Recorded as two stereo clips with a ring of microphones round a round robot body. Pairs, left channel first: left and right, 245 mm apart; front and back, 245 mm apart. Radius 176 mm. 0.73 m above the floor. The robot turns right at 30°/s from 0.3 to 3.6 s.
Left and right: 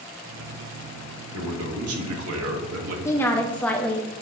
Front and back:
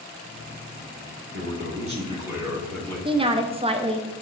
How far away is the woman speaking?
About 0.8 m.